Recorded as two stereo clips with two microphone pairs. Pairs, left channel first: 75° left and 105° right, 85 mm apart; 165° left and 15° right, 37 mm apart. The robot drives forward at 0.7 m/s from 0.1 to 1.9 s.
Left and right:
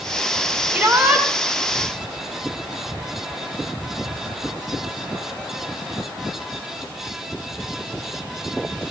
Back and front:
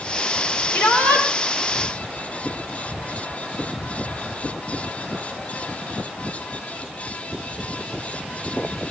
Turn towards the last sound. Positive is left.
turn(degrees=-175)